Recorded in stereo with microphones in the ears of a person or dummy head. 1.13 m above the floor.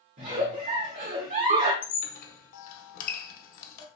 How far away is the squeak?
About 0.9 m.